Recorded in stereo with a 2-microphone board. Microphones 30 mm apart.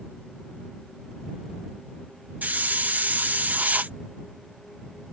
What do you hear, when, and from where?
2.4 s a hiss: 65° right (ahead or behind)